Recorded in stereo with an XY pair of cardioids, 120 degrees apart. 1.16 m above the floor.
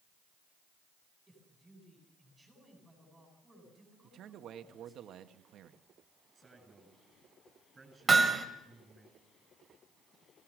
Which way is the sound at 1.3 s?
10° right.